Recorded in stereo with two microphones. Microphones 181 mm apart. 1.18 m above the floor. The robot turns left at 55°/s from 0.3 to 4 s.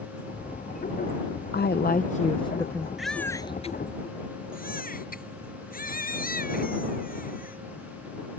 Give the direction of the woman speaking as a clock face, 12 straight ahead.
9 o'clock.